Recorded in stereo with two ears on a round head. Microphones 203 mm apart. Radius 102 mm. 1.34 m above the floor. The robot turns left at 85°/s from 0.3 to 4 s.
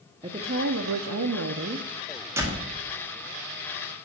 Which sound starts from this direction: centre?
A door slam, at 2.4 s.